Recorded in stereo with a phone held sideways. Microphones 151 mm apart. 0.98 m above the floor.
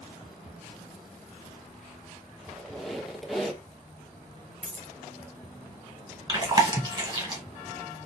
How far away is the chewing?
About 1.7 m.